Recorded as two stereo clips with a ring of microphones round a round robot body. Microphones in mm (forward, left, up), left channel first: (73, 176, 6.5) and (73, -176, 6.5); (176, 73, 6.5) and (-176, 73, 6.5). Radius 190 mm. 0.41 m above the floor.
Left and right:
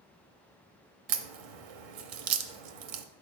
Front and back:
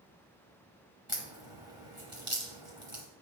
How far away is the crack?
About 0.8 m.